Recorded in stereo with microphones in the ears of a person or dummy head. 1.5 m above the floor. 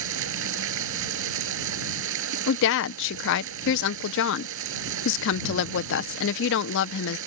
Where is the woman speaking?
65° left (ahead or behind).